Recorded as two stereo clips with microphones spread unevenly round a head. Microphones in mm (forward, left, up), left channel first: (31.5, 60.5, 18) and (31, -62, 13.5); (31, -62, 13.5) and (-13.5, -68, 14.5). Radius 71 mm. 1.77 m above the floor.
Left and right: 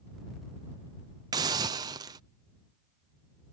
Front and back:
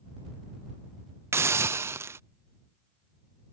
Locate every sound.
1.3 s a hiss: 155° right